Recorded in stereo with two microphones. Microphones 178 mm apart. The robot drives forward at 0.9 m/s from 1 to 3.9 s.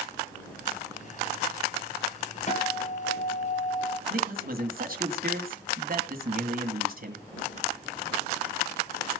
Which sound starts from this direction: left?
A guitar, at 2.5 s.